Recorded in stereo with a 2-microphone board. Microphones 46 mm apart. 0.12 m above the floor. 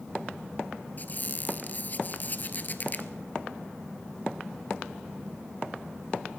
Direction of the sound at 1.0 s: 45° left (ahead or behind).